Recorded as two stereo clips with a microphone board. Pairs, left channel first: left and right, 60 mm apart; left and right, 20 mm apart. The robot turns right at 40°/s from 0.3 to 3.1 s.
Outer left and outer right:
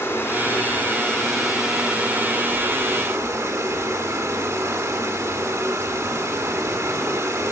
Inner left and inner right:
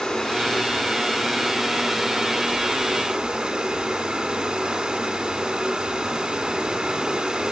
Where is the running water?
130° left, 1.5 m; by 7.5 s 115° right, 1.5 m.